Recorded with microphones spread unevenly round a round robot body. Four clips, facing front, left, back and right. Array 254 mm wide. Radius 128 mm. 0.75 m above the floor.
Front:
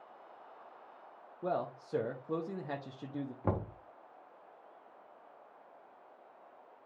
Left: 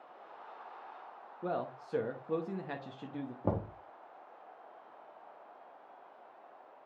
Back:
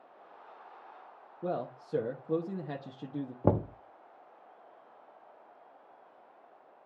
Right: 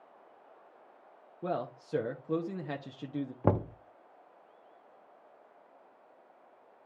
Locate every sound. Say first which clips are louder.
1.4 s a man speaking: right 2 dB, even; 170° right, 0.9 m
3.4 s knocking: right 6 dB, back 8 dB; 155° right, 0.6 m